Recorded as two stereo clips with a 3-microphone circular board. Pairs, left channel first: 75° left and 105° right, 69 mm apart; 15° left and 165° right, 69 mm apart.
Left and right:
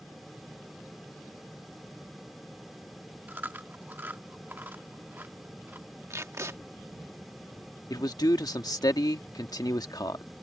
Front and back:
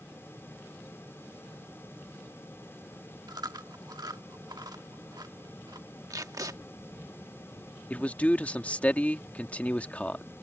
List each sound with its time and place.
3.3 s chewing: 165° right
6.1 s tape being pulled: 145° right
7.9 s a man speaking: 80° left